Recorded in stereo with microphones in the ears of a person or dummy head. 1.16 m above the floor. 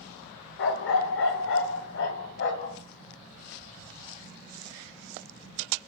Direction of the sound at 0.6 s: 65° left (ahead or behind).